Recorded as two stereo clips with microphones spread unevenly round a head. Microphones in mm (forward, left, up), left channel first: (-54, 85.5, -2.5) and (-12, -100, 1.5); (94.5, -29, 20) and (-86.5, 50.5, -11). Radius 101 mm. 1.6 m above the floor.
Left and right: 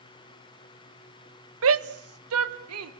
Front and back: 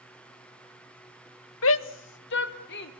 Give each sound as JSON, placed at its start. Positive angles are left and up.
{"t": 1.6, "sound": "a shout", "azimuth_deg": -50, "distance_m": 0.9}